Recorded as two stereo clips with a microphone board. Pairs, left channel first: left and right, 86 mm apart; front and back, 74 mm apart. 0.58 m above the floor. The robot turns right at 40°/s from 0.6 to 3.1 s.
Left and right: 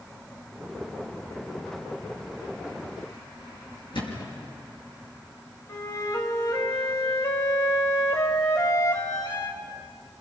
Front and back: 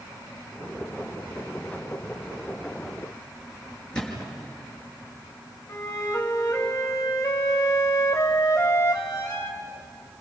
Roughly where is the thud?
Left.